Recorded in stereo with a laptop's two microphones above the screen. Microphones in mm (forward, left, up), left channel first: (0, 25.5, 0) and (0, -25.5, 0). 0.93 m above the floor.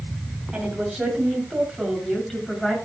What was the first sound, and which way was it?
A woman speaking, 15° right (ahead or behind).